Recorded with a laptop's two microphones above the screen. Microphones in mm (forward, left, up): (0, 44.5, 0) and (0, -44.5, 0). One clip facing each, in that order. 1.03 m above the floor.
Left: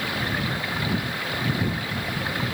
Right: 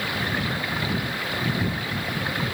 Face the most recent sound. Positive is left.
No sound to turn to.